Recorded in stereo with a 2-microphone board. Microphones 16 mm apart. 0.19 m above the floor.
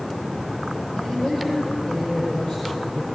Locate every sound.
0.9 s a woman speaking: 60° left (ahead or behind), 6.5 m